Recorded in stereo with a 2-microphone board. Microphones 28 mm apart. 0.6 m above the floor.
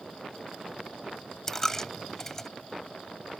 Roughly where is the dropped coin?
Centre.